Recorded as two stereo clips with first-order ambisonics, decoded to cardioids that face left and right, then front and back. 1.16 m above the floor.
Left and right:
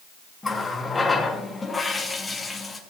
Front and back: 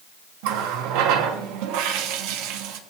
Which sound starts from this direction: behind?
A running tap, at 0.4 s.